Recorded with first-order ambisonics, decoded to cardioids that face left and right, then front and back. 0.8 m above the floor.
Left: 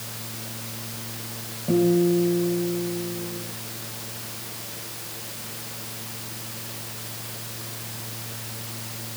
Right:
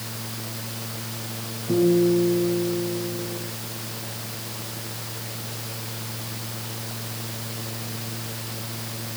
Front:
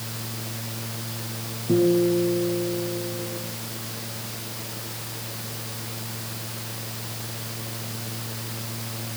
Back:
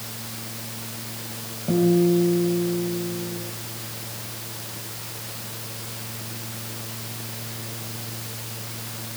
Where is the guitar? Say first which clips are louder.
Right 1 dB, even; 140° left, 4.5 m.